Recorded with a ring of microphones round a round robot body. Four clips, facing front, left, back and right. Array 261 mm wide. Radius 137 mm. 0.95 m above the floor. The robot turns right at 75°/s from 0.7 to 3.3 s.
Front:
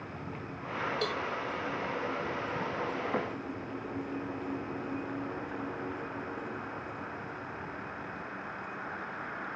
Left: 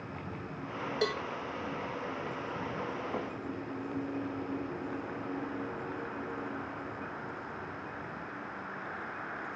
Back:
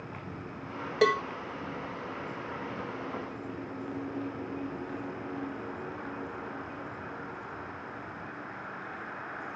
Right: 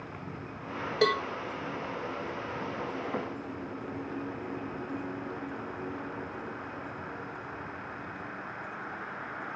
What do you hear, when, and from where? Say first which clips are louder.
1.0 s a cowbell: right 7 dB, back 14 dB; 155° right; by 1.2 s 135° right